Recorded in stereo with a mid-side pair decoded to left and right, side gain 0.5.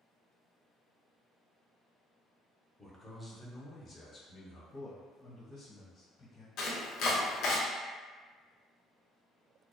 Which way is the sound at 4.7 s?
45° left.